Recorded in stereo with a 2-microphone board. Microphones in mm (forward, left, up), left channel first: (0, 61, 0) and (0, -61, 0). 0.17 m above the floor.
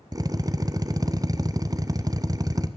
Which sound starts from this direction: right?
A drill, at 0.1 s.